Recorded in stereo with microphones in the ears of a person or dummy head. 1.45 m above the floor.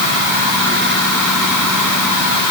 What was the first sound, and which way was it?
Only background noise.